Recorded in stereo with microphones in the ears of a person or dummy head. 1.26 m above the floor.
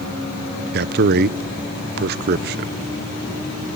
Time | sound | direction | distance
0.7 | a man speaking | 60° right (ahead or behind) | 0.6 m